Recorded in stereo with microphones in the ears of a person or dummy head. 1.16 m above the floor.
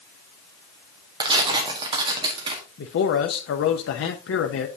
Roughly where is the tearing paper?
Right.